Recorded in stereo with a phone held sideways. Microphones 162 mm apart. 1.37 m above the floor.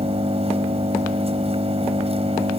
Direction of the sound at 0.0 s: 40° right (ahead or behind).